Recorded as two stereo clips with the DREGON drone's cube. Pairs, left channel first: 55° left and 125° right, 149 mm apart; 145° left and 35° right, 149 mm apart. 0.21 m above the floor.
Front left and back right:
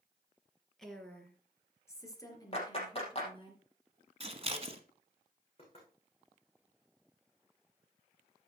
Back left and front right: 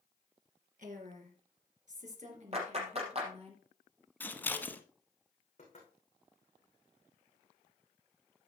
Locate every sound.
0.8 s a woman speaking: 30° right, 2.5 m; by 3.5 s 5° left, 3.5 m
2.5 s a clap: 5° left, 4 m
4.2 s scissors: 145° right, 1.0 m
5.6 s knocking: 105° left, 7.5 m